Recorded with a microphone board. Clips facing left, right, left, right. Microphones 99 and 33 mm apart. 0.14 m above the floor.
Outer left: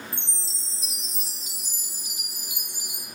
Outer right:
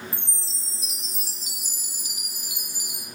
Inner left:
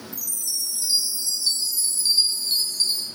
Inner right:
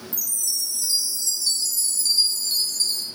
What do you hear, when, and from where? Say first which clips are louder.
0.1 s a chime: outer right 1 dB, inner right 3 dB; 25° left (ahead or behind), 1.5 m